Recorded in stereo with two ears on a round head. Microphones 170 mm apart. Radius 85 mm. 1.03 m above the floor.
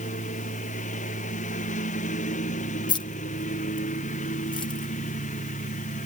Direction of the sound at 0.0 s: 40° left (ahead or behind).